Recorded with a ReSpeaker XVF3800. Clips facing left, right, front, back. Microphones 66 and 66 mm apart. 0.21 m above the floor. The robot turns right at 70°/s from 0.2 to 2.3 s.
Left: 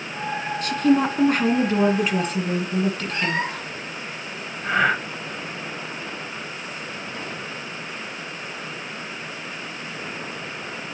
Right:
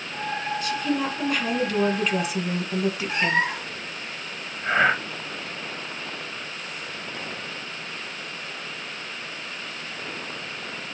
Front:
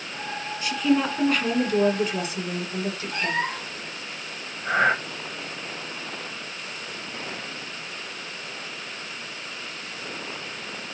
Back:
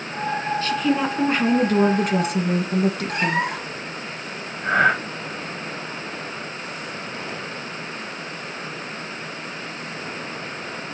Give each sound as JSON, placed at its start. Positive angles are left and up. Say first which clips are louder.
{"t": 0.6, "sound": "a woman speaking", "louder": "left 9 dB, front 2 dB", "azimuth_deg": 75, "distance_m": 2.0}
{"t": 3.1, "sound": "a cat meowing", "louder": "right 2 dB, back 4 dB", "azimuth_deg": -160, "distance_m": 4.5}
{"t": 4.6, "sound": "breathing", "louder": "even, back 3 dB", "azimuth_deg": -165, "distance_m": 5.0}